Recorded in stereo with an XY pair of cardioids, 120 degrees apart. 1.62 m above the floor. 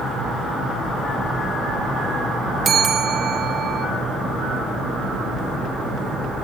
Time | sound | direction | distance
2.6 | a bell | 35° right | 0.9 m